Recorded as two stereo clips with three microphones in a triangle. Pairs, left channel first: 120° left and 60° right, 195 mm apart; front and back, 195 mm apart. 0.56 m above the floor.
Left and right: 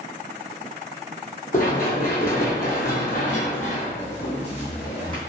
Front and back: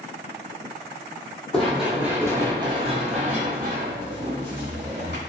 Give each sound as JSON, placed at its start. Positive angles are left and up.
{"t": 1.5, "sound": "running footsteps", "azimuth_deg": 85, "distance_m": 1.0}